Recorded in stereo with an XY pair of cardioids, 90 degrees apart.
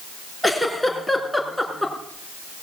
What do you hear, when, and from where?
0.4 s a giggle: straight ahead, 4.5 m